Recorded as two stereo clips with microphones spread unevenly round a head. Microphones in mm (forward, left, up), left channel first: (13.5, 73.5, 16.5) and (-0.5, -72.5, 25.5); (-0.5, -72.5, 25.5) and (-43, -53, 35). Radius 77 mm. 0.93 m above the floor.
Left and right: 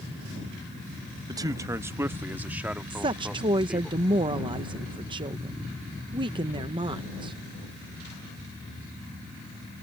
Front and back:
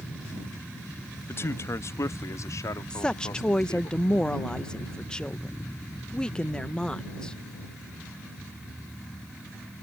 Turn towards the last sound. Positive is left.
turn(degrees=-60)